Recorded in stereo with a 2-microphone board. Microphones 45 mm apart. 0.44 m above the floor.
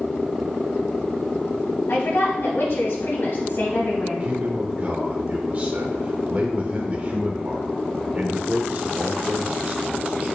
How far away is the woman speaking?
About 3.5 m.